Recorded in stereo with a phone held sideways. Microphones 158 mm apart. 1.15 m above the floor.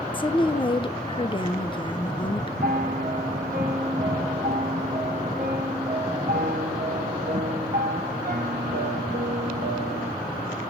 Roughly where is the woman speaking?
Left.